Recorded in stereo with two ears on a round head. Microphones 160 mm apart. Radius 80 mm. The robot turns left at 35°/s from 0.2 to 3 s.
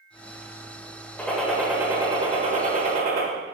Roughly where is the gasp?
No gasp in this recording.